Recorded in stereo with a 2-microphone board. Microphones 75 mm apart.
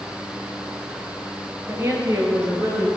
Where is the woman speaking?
35° right (ahead or behind), 2 m; by 2.9 s 45° right (ahead or behind), 3.5 m.